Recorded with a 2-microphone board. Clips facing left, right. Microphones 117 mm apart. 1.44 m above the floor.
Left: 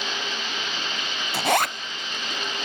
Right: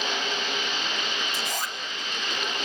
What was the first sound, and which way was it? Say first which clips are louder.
A zipper: left 10 dB; 70° left (ahead or behind).